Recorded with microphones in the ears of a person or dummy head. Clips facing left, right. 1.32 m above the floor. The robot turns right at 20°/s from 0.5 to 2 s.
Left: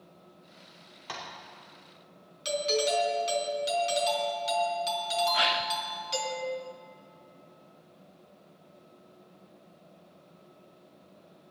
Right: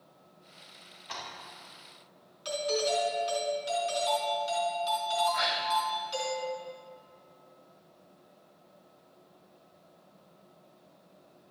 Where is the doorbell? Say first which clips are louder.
Left 2 dB; 30° left (ahead or behind), 4 m.